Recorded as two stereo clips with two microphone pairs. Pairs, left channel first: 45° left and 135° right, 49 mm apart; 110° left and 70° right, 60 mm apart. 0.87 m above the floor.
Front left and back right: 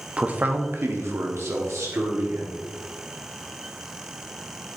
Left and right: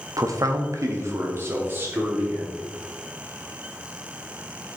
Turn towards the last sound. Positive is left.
turn(degrees=-130)